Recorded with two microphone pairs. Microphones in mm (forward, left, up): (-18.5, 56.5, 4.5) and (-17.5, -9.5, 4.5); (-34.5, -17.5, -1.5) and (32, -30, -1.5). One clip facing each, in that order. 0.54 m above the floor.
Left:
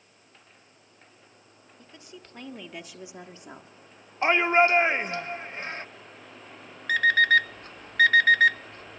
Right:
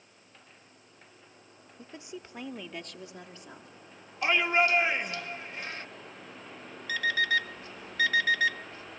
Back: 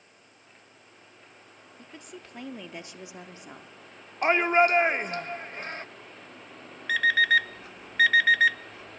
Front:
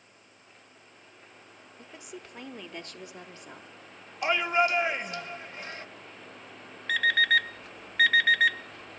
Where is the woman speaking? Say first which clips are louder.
Right 5 dB, even; 75° right, 1.3 m; by 3.7 s 125° left, 1.5 m.